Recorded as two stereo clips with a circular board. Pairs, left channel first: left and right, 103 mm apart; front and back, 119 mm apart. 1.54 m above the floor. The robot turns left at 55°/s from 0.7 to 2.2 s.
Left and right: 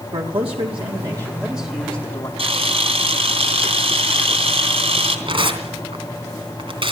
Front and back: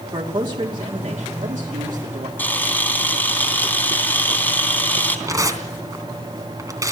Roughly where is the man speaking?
Behind right.